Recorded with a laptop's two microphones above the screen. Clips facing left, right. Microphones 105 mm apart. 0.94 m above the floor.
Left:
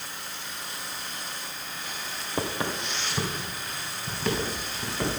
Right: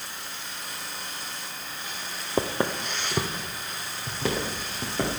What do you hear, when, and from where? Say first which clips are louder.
2.4 s footsteps: right 4 dB; 25° right (ahead or behind), 1.0 m; by 5.2 s 60° right (ahead or behind), 4.5 m